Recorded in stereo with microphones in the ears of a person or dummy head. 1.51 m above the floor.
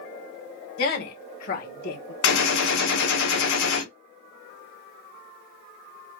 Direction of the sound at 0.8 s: 50° left (ahead or behind).